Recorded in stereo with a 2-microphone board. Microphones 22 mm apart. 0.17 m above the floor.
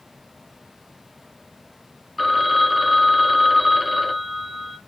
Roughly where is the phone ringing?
Centre.